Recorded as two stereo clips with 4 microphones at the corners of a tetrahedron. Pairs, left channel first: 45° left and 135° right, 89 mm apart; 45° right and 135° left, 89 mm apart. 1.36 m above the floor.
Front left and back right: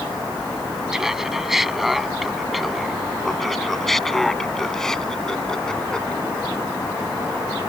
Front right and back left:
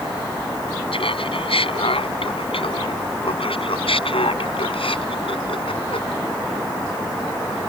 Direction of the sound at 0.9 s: 50° right.